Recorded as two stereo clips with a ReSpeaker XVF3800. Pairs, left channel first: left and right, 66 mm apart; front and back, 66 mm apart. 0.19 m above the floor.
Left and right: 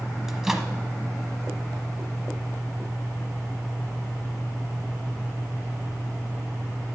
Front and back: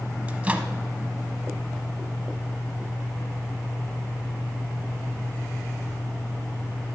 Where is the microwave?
165° right, 0.8 m.